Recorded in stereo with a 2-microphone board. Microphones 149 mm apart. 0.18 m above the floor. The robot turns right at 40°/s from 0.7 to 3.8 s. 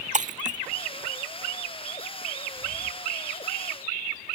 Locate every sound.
0.1 s breaking glass: 50° right (ahead or behind)